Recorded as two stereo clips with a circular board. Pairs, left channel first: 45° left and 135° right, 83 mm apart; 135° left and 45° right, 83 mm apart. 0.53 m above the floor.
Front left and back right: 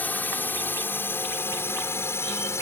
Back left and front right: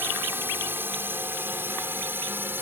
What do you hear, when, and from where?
0.0 s a drone: 5° right; by 2.6 s 5° left